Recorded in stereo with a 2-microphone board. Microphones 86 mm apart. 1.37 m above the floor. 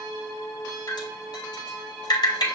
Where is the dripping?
55° left (ahead or behind), 3 m.